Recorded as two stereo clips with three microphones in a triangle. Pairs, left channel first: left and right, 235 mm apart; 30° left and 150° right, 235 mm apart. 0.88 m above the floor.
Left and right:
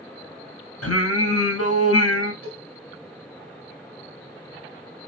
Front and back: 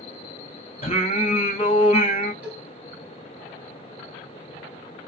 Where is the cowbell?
65° right, 1.7 m.